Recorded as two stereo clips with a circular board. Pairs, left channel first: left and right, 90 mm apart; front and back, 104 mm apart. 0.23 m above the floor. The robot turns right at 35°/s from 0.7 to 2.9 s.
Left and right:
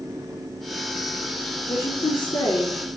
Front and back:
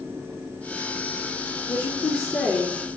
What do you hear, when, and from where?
1.7 s a woman speaking: 30° left, 3.5 m; by 2.9 s 70° left, 3.5 m